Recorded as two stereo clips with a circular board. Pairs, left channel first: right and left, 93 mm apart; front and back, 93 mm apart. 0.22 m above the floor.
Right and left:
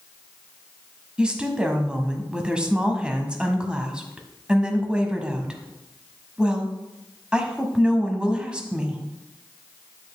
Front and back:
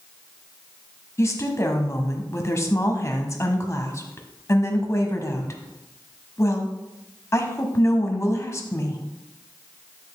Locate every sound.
1.2 s a woman speaking: 20° left, 1.2 m